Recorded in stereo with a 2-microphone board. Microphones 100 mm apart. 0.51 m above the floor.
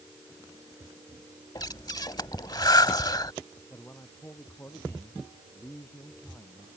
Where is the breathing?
45° left (ahead or behind).